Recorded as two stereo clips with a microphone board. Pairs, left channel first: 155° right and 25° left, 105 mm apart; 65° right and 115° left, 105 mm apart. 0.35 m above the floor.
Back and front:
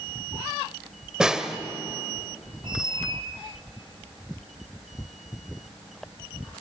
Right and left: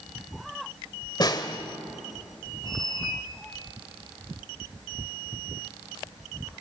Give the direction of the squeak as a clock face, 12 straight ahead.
1 o'clock.